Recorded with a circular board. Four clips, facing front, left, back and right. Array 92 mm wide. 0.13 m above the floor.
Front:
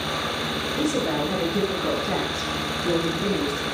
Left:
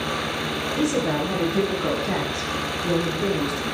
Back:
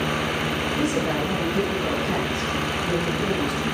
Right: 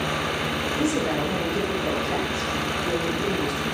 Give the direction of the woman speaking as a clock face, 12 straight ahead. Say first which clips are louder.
Left 2 dB, front 1 dB; 9 o'clock.